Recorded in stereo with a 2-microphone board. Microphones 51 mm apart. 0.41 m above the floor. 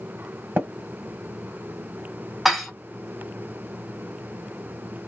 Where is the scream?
I don't hear a scream.